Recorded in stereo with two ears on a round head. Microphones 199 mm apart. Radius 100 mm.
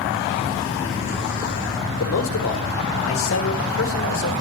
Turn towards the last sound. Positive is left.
turn(degrees=65)  # may be behind; listen again after turning